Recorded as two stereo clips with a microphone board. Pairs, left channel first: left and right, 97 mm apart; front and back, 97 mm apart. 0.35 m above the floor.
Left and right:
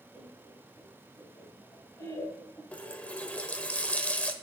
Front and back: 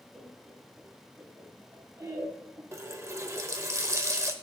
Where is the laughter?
95° left, 2.5 m; by 2.6 s 145° left, 2.5 m.